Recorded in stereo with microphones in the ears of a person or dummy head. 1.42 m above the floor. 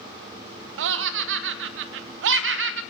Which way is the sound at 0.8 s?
65° right (ahead or behind).